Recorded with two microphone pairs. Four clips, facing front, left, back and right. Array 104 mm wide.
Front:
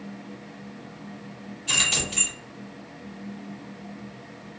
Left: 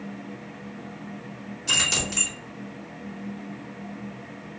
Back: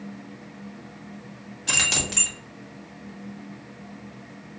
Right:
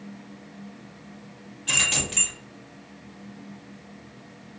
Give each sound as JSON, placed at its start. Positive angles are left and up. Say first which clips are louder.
{"t": 1.7, "sound": "keys jangling", "louder": "left 1 dB, back 1 dB", "azimuth_deg": -175, "distance_m": 1.2}